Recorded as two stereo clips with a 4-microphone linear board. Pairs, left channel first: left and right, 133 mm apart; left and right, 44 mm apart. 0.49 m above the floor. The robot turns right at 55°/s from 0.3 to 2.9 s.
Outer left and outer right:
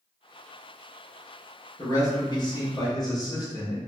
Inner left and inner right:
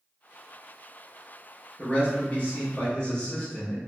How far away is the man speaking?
About 0.9 m.